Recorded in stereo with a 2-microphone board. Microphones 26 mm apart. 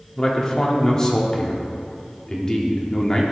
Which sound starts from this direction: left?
A man speaking, at 0.2 s.